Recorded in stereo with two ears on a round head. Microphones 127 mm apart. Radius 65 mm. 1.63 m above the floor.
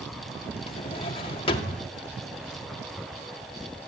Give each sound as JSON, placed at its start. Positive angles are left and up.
{"t": 0.7, "sound": "a drawer", "side_deg": 40, "distance_m": 1.9}